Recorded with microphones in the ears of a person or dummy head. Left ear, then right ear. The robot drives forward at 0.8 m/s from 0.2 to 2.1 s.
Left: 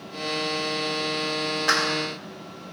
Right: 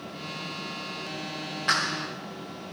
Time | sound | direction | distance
1.7 | a clap | 20° left (ahead or behind) | 1.0 m